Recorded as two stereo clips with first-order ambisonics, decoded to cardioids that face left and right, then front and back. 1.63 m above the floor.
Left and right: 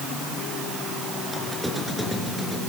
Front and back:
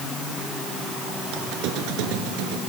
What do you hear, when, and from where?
1.3 s a squeak: 175° right, 3.5 m